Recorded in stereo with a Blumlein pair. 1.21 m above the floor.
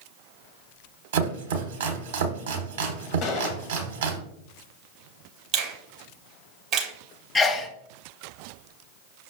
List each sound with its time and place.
1.1 s chopping: 60° right, 0.8 m
3.2 s a gunshot: 35° left, 0.5 m
5.5 s a finger snap: 30° right, 0.8 m
7.3 s a sneeze: 20° left, 0.5 m